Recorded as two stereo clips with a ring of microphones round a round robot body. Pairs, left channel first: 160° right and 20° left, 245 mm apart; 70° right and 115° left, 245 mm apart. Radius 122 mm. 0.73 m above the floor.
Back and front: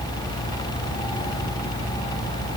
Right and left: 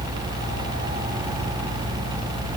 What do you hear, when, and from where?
Only background noise.